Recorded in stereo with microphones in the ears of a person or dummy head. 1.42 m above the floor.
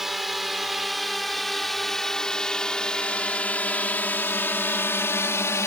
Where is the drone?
Centre (ahead or behind); by 5.7 s 15° left (ahead or behind).